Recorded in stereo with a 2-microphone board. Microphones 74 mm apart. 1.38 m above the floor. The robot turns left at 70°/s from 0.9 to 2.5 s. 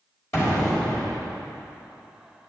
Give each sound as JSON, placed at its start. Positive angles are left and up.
{"t": 0.3, "sound": "an explosion", "side_deg": 40, "distance_m": 3.5}